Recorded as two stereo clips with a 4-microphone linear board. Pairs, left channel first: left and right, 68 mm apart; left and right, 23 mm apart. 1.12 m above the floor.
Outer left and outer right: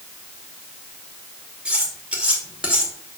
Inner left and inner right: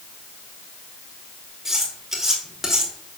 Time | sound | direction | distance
1.6 | cutlery clinking | 15° right (ahead or behind) | 2.5 m